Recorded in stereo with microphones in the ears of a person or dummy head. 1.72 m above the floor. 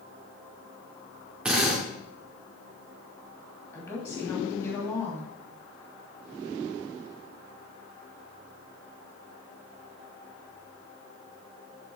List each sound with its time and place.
1.4 s a drill: 5° right (ahead or behind), 2.5 m
3.7 s a woman speaking: 15° left (ahead or behind), 3 m